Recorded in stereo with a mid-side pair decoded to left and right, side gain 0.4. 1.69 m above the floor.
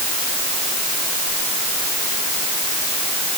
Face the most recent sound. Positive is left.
No sound to turn to.